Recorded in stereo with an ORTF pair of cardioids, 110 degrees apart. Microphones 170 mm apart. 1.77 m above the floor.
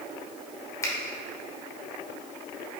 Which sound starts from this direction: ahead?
A finger snap, at 0.8 s.